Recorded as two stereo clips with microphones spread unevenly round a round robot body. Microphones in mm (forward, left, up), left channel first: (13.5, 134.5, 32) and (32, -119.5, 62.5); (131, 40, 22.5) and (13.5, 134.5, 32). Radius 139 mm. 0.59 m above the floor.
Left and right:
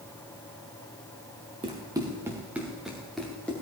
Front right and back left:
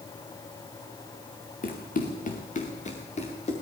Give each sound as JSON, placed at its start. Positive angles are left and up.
{"t": 1.6, "sound": "running footsteps", "azimuth_deg": -15, "distance_m": 3.0}